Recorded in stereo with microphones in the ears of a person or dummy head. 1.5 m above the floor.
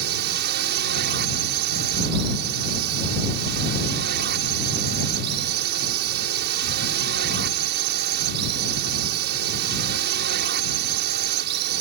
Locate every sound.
0.0 s a drone: 60° right (ahead or behind)